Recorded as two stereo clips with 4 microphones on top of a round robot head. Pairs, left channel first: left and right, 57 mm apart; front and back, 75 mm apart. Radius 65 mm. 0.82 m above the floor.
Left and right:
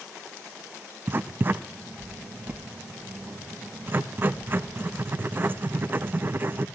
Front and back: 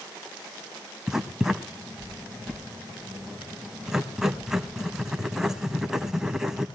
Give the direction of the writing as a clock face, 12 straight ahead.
4 o'clock.